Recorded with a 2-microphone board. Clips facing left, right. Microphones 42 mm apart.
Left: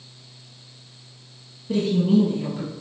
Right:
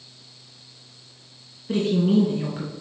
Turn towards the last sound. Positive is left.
turn(degrees=-35)  # may be behind; listen again after turning